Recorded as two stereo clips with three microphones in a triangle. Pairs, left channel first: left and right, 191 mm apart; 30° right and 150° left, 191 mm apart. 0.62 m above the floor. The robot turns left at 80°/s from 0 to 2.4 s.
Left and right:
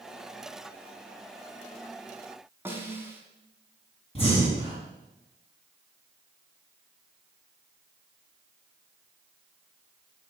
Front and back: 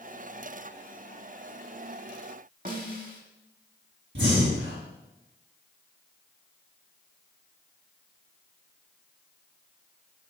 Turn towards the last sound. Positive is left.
turn(degrees=150)